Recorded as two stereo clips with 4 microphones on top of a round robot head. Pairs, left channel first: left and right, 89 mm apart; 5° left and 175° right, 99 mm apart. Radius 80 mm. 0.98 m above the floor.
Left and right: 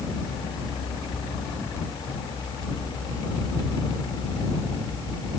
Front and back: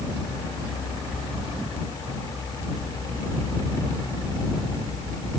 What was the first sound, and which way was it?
Only background noise.